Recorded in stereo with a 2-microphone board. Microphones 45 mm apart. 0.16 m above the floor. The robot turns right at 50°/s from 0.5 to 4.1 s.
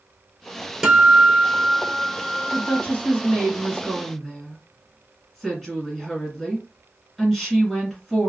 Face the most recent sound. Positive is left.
turn(degrees=175)